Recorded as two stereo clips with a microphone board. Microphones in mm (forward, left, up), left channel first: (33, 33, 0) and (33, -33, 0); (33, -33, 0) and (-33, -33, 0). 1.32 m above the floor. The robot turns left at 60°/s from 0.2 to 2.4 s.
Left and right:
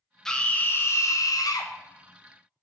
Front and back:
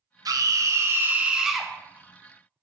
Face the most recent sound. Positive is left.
turn(degrees=45)